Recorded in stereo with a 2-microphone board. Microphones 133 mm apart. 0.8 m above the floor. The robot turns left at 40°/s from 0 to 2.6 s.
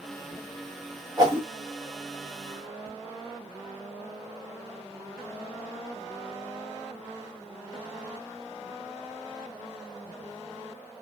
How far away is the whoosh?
About 0.9 m.